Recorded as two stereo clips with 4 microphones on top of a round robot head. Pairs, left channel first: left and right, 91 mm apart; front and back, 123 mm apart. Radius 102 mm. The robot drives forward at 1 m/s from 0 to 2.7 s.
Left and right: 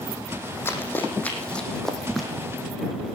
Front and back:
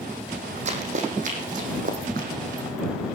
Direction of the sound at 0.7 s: 155° left.